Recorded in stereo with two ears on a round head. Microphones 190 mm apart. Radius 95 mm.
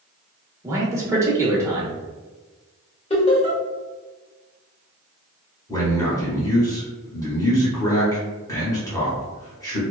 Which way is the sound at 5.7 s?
15° left (ahead or behind).